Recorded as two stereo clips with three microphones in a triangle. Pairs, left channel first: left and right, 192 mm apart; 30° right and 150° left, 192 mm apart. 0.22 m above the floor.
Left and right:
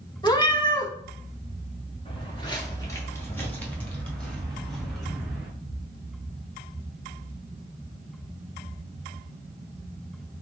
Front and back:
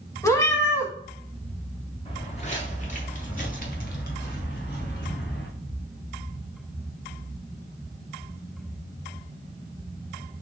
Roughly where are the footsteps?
Ahead left.